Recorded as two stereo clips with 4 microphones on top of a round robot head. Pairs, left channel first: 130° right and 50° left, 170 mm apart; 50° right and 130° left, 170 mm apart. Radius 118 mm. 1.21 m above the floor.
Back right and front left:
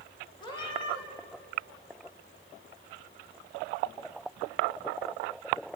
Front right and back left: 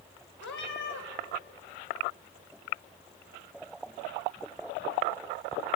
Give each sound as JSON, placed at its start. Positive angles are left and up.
{"t": 0.4, "sound": "a cat meowing", "azimuth_deg": -65, "distance_m": 2.5}